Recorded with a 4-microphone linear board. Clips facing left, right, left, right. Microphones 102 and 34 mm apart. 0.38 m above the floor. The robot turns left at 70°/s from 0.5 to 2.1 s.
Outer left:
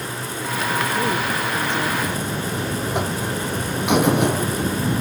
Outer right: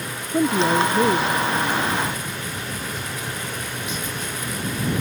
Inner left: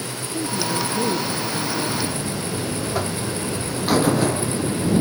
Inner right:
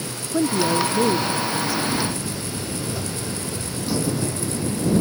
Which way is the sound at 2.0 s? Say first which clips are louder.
Outer left 4 dB, inner left 1 dB; 65° left (ahead or behind).